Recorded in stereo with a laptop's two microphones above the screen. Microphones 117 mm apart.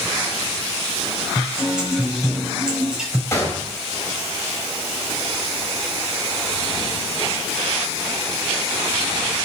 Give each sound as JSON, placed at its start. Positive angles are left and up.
{"t": 1.4, "sound": "a guitar", "side_deg": -5, "distance_m": 5.0}
{"t": 3.3, "sound": "a gunshot", "side_deg": 25, "distance_m": 4.0}